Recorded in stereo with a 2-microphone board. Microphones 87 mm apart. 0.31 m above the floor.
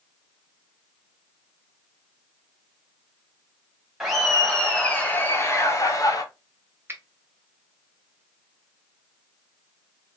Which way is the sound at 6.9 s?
25° right (ahead or behind).